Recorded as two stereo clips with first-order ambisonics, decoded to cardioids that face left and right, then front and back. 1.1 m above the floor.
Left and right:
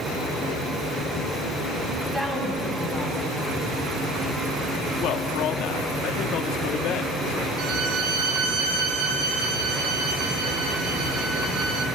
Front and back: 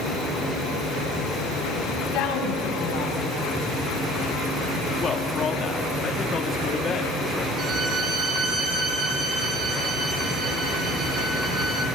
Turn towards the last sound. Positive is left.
turn(degrees=-120)